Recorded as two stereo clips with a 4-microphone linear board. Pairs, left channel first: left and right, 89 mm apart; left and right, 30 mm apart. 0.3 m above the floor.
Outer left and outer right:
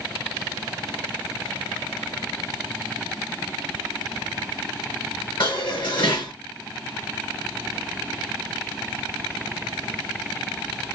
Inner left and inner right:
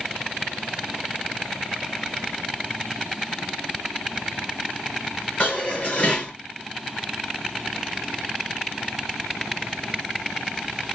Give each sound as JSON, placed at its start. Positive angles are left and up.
{"t": 5.4, "sound": "dishes clattering", "side_deg": 55, "distance_m": 3.0}